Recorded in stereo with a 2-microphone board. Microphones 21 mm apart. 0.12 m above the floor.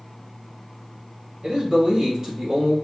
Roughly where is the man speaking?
Right.